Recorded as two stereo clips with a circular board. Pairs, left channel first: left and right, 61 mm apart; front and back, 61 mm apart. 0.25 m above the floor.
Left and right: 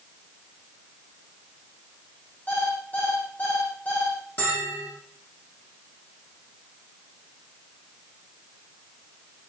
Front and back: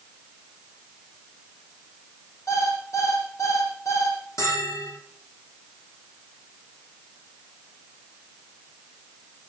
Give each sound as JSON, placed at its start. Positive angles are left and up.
{"t": 2.5, "sound": "an alarm clock", "azimuth_deg": 25, "distance_m": 7.5}
{"t": 4.4, "sound": "a bell", "azimuth_deg": 30, "distance_m": 10.0}